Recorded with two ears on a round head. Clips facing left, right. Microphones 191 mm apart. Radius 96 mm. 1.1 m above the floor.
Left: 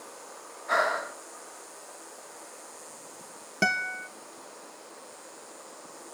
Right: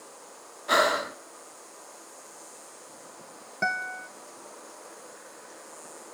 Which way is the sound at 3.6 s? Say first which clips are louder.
Left 2 dB; 40° left (ahead or behind).